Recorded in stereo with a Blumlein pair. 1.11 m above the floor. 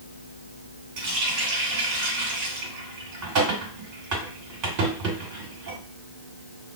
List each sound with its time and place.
1.0 s a running tap: 40° right, 1.8 m